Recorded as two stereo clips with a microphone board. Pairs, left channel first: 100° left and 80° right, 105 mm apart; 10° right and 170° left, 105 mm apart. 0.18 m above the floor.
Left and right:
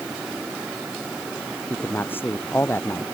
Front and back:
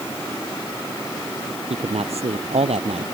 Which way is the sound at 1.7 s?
170° left.